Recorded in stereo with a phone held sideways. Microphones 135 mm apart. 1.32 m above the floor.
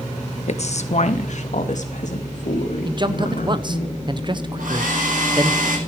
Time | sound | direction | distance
0.5 | a woman speaking | 55° left (ahead or behind) | 1.2 m
2.9 | a man speaking | 35° right (ahead or behind) | 0.9 m
4.6 | a hair dryer | 85° right | 5 m